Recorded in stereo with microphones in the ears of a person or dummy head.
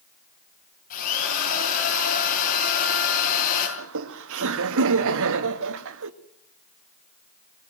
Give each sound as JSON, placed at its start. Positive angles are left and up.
{"t": 0.9, "sound": "a drill", "side_deg": 45, "distance_m": 9.0}
{"t": 3.8, "sound": "laughter", "side_deg": -70, "distance_m": 1.7}